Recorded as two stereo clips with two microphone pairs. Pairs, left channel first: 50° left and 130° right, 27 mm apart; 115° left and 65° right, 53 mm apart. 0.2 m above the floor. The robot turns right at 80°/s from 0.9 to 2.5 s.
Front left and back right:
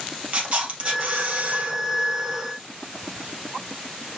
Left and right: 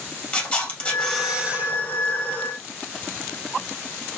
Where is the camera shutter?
Straight behind, 2.0 m; by 1.8 s 105° right, 2.0 m.